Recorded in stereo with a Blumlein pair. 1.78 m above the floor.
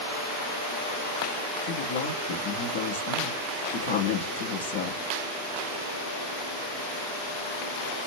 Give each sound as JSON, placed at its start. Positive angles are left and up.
{"t": 1.7, "sound": "a woman speaking", "azimuth_deg": 50, "distance_m": 0.9}